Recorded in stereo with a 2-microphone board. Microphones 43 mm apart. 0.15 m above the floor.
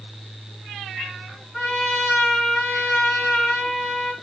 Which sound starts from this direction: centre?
A trumpet, at 1.5 s.